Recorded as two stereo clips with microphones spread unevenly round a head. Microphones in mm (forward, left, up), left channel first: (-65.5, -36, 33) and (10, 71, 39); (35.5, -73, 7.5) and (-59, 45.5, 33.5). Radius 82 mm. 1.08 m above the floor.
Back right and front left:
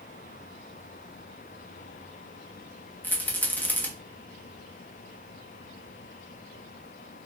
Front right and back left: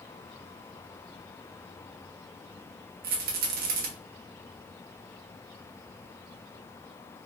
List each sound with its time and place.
3.0 s a rattle: 155° left, 1.2 m